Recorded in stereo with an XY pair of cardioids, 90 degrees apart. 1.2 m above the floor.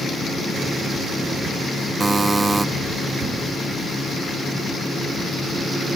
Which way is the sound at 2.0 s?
30° right.